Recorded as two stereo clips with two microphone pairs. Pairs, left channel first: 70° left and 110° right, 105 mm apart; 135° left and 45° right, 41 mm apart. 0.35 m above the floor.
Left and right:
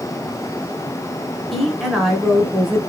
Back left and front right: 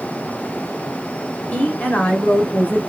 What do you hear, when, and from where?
1.5 s a woman speaking: 160° left, 1.3 m